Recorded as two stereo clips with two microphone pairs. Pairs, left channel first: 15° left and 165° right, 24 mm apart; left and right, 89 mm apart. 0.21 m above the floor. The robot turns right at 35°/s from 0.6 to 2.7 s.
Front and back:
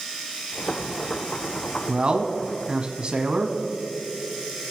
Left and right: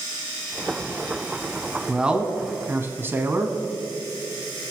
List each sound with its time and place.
1.9 s a man speaking: 175° right, 1.3 m; by 3.6 s 145° right, 1.3 m